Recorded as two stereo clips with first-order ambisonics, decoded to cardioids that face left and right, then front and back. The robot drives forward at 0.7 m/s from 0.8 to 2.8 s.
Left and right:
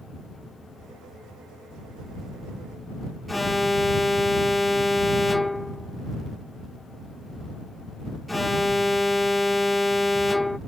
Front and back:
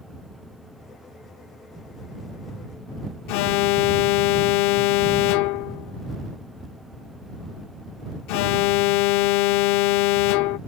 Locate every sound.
3.3 s an alarm: 5° left